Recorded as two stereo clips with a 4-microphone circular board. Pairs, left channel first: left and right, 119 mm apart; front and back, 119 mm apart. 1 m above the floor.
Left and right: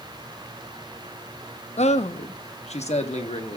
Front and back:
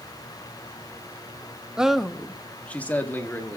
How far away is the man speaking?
About 0.7 m.